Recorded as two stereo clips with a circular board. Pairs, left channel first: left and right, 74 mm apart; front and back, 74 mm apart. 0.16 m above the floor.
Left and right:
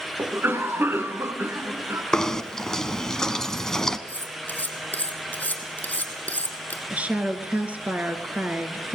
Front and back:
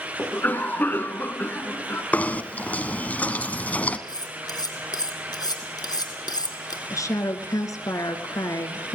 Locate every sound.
0.2 s a cough: 50° right, 1.9 m
2.1 s knocking: 15° left, 1.1 m
4.1 s cutlery clinking: 20° left, 4 m
6.9 s a woman speaking: 25° right, 2 m